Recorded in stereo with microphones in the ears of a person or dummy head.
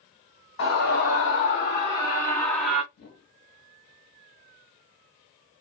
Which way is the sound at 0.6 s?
60° left (ahead or behind).